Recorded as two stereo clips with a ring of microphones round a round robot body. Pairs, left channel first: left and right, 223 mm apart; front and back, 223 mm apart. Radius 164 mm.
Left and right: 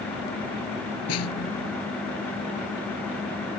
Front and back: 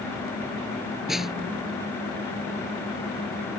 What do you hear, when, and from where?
1.1 s a snare drum: 90° left